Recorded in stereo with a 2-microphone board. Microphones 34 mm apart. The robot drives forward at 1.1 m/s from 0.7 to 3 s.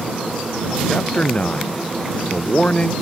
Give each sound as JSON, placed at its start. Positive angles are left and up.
{"t": 0.9, "sound": "a man speaking", "side_deg": 30}